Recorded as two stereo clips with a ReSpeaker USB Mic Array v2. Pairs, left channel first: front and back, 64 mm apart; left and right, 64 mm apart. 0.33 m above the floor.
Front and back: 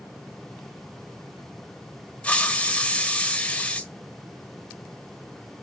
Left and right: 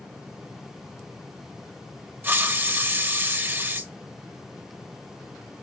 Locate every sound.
2.2 s a hiss: 60° right, 0.9 m